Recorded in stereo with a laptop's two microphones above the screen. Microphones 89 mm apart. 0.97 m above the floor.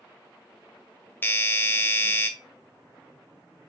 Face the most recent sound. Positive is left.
turn(degrees=20)  # may be behind; listen again after turning